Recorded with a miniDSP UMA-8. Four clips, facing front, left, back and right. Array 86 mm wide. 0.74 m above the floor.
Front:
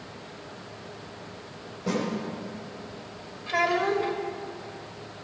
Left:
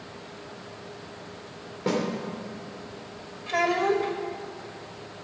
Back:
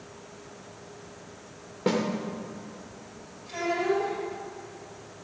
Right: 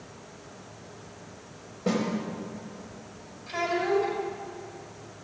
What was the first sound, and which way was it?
A snare drum, 150° left.